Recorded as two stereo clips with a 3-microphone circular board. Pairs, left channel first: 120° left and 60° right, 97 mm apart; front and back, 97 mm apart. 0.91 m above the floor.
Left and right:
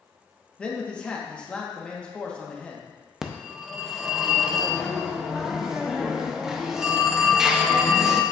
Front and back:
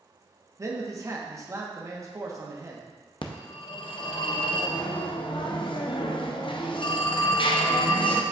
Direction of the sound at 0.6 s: 170° right.